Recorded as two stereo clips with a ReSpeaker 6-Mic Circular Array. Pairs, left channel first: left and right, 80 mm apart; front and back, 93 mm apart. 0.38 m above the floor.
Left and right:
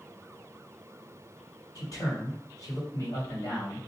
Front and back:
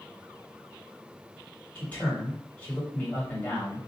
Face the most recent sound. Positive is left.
turn(degrees=70)